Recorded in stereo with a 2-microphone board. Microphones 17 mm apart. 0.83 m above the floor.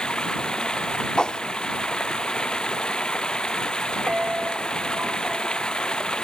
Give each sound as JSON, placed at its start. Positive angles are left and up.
{"t": 0.0, "sound": "running water", "side_deg": 65}
{"t": 1.2, "sound": "a whoosh", "side_deg": 75}
{"t": 4.1, "sound": "a piano", "side_deg": -70}